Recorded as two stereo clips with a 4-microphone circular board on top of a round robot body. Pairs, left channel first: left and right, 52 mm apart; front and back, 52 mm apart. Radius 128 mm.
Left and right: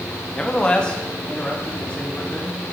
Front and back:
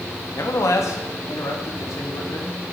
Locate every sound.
0.3 s a man speaking: 15° left, 2 m; by 2.6 s 20° left, 4 m